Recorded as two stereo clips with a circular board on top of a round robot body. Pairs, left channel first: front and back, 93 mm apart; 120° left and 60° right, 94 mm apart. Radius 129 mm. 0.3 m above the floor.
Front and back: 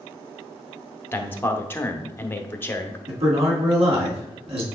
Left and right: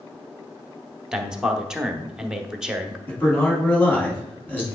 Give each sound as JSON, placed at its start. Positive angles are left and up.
{"t": 1.1, "sound": "a man speaking", "azimuth_deg": 10, "distance_m": 1.1}
{"t": 3.1, "sound": "a man speaking", "azimuth_deg": -170, "distance_m": 3.0}